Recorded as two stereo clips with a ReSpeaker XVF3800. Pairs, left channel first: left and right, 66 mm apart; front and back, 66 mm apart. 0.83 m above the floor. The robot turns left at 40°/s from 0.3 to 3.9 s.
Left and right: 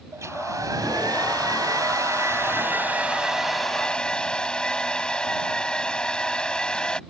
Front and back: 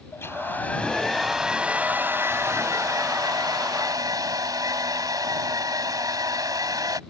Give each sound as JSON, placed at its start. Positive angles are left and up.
{"t": 0.1, "sound": "a hair dryer", "azimuth_deg": -50}